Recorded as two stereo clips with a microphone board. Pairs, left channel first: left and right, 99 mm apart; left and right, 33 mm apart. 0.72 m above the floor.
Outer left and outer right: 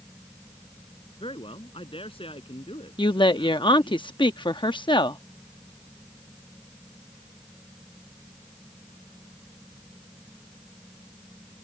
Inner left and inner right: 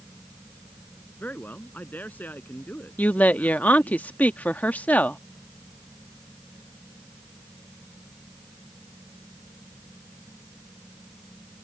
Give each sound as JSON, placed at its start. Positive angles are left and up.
{"t": 1.2, "sound": "a man speaking", "side_deg": 60}
{"t": 3.0, "sound": "a woman speaking", "side_deg": 50}